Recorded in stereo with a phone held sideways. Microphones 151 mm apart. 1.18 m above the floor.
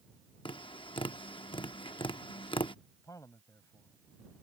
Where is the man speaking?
20° left (ahead or behind).